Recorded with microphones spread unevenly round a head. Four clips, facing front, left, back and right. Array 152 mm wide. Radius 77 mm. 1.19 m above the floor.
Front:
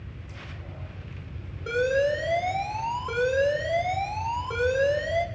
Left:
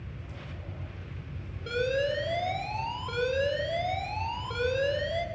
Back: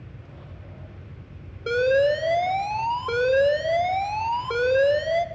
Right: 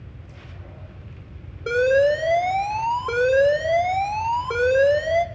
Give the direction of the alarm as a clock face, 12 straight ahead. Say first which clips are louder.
Right 11 dB, back 4 dB; 4 o'clock.